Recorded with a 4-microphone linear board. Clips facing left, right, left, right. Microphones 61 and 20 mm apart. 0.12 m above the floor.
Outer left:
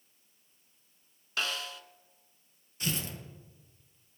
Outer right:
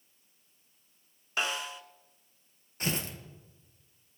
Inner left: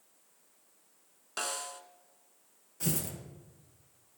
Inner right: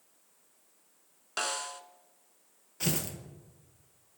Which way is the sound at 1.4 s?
20° right (ahead or behind).